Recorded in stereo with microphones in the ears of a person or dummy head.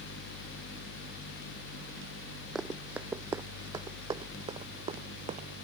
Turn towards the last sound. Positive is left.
turn(degrees=-35)  # may be behind; listen again after turning